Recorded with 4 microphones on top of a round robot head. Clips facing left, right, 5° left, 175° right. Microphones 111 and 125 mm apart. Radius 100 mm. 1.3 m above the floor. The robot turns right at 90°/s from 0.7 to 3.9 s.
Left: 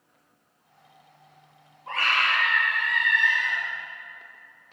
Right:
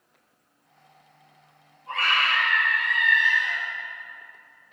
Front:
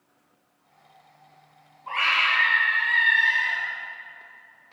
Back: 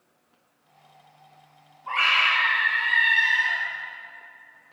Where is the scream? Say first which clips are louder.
Even, back 1 dB; 70° left, 4 m; by 3.6 s 130° right, 4 m.